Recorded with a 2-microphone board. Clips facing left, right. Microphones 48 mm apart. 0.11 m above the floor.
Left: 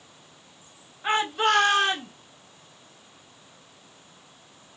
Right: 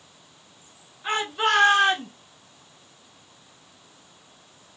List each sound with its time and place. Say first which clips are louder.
1.0 s a shout: left 1 dB; 20° left (ahead or behind), 1.2 m; by 2.1 s 45° right (ahead or behind), 1.4 m